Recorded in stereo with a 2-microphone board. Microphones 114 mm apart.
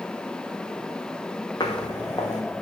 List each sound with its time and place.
1.6 s footsteps: 40° left (ahead or behind), 1.1 m